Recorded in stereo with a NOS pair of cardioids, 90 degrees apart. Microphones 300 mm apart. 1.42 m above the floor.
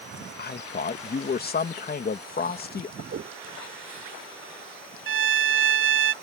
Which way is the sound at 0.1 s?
35° left.